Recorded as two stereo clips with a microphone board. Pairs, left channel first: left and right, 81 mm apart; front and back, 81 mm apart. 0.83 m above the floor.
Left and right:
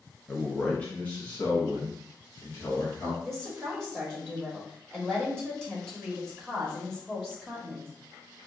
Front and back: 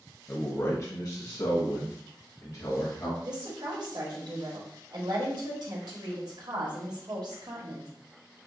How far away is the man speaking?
About 0.6 m.